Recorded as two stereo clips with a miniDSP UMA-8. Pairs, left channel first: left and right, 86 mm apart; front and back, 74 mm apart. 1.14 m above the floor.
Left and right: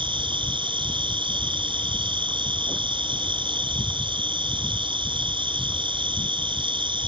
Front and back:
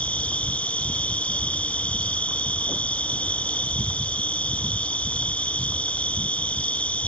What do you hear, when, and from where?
0.0 s an insect: 75° right